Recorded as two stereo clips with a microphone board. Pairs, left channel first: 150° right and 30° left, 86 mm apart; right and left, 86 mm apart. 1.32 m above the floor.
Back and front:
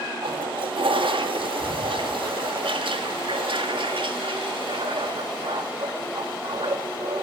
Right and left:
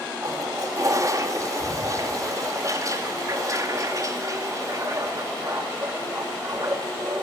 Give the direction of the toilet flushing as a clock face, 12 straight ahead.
11 o'clock.